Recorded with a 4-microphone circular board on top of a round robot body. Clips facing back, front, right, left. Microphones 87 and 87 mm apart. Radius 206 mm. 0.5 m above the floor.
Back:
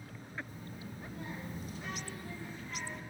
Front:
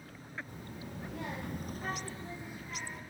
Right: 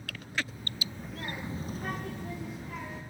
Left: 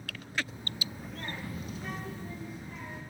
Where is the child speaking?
25° left, 0.7 m; by 3.0 s 85° right, 0.9 m.